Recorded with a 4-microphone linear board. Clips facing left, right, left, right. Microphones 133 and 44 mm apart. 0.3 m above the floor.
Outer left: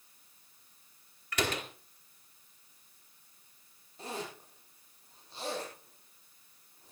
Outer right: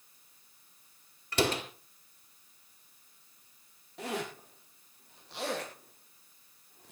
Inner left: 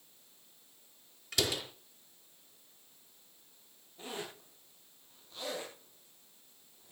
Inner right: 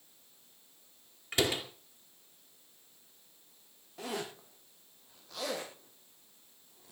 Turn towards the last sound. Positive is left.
turn(degrees=-70)  # may be behind; listen again after turning